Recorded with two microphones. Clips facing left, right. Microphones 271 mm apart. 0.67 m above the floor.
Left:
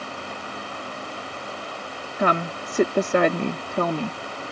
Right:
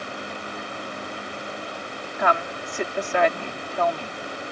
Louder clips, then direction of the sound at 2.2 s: Left 2 dB; 40° left (ahead or behind).